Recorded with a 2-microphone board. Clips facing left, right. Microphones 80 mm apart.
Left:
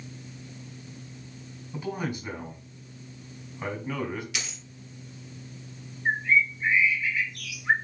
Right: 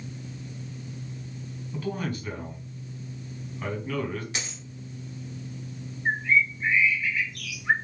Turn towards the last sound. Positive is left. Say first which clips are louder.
# even
turn(degrees=-5)  # may be behind; listen again after turning